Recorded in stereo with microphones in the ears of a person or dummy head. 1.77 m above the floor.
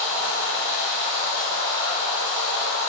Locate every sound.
0.0 s running water: 20° right (ahead or behind), 1.3 m